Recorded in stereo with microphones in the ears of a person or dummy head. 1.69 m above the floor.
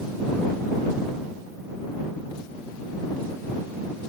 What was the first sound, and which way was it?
Only background noise.